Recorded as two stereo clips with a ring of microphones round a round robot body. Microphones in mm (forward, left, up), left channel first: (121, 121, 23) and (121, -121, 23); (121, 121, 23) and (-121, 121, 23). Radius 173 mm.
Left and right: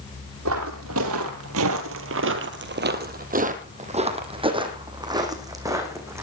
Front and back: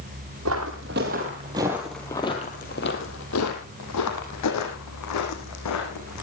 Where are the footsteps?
135° right, 2.0 m; by 6.2 s 10° right, 4 m.